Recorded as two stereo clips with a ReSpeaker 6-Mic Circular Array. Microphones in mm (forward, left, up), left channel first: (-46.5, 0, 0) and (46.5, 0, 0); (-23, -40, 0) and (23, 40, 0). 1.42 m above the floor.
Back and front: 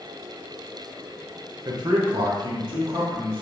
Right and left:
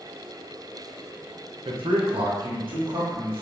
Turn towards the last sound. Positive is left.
turn(degrees=30)